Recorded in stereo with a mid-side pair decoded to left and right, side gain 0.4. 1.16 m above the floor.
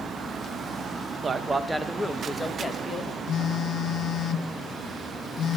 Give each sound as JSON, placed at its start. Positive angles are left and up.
{"t": 1.2, "sound": "a man speaking", "azimuth_deg": -35, "distance_m": 1.0}
{"t": 3.3, "sound": "a phone buzzing", "azimuth_deg": 65, "distance_m": 0.7}